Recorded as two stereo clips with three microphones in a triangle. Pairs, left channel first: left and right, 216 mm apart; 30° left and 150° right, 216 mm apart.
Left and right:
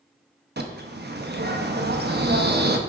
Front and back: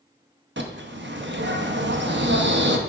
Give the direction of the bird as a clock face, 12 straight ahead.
4 o'clock.